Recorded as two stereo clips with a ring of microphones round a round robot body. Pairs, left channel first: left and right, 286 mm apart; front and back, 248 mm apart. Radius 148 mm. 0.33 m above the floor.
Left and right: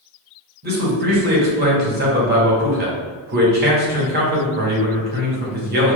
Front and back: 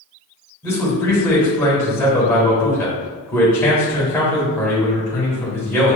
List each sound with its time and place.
0.6 s a man speaking: 75° right, 1.2 m